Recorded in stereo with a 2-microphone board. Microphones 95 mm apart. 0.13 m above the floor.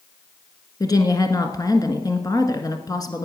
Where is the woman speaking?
40° left (ahead or behind), 1.3 m.